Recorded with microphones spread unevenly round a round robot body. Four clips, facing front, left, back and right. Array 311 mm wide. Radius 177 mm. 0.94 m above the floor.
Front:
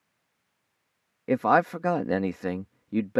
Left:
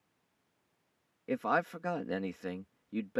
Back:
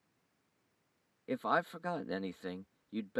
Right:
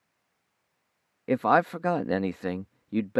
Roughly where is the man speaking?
Ahead right.